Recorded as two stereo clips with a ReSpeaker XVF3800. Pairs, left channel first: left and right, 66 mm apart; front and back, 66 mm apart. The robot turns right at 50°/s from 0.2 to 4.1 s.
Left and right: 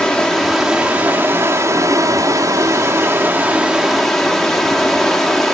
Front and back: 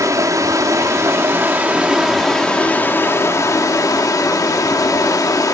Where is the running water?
165° left, 1.0 m; by 5.5 s straight ahead, 1.0 m.